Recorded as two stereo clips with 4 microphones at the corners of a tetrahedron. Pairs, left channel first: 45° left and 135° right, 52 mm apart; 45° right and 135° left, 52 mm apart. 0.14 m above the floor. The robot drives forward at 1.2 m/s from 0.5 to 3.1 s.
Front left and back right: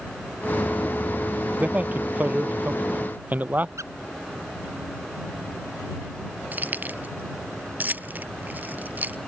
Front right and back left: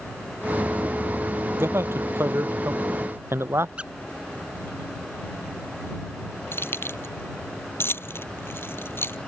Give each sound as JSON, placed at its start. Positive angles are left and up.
{"t": 1.6, "sound": "a man speaking", "azimuth_deg": 165}
{"t": 3.8, "sound": "a squeak", "azimuth_deg": -155}
{"t": 6.5, "sound": "keys jangling", "azimuth_deg": -80}